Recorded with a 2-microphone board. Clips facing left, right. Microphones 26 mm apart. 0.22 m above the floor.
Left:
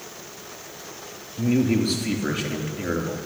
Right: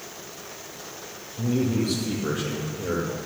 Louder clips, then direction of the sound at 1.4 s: Left 3 dB; 55° left (ahead or behind).